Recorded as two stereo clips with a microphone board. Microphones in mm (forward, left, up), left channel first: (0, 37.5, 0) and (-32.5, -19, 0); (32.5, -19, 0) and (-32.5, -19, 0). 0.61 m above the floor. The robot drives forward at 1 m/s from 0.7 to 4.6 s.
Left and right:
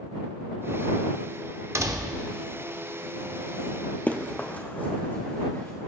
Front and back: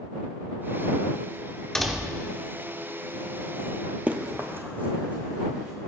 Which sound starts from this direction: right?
A door slam, at 1.8 s.